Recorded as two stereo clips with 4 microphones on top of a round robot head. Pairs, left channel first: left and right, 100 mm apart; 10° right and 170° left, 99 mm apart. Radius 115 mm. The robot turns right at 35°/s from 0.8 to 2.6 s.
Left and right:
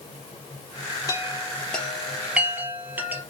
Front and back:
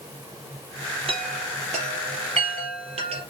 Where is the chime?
145° left, 3 m; by 3.2 s 160° right, 3 m.